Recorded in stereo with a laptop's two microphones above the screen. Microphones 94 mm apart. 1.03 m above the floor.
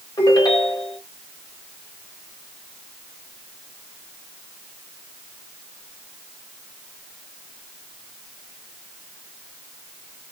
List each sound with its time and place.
0.2 s a ringtone: 40° left (ahead or behind), 2 m